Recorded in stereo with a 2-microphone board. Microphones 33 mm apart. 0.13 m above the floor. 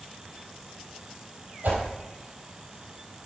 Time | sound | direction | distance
1.6 | a whoosh | 70° right (ahead or behind) | 3.5 m